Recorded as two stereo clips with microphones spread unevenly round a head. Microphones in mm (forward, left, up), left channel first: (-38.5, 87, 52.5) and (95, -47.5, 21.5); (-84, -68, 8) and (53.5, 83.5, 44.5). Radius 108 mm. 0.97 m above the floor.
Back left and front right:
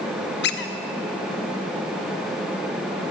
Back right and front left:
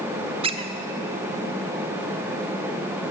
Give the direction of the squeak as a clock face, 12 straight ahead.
8 o'clock.